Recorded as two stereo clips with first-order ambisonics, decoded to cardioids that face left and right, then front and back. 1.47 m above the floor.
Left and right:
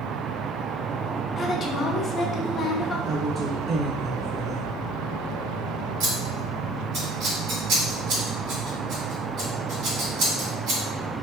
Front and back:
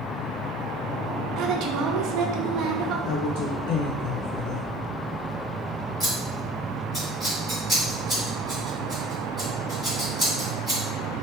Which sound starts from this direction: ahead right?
A woman speaking, at 3.0 s.